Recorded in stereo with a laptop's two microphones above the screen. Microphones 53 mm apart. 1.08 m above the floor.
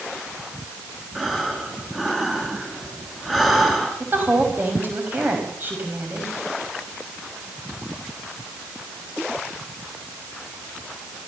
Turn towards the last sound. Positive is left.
turn(degrees=-40)  # may be behind; listen again after turning